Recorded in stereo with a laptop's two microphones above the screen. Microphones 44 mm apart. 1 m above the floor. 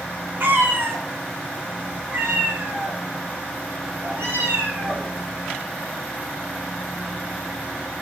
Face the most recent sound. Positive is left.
turn(degrees=-75)  # may be behind; listen again after turning